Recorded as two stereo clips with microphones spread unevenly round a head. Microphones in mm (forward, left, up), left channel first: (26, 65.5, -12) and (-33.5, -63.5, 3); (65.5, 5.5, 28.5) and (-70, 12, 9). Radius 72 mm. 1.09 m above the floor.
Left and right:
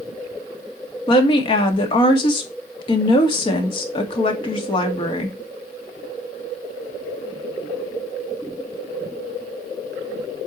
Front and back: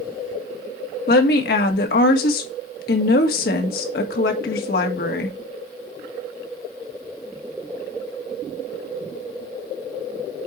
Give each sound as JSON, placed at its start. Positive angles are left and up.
{"t": 1.1, "sound": "a woman speaking", "azimuth_deg": 10, "distance_m": 2.0}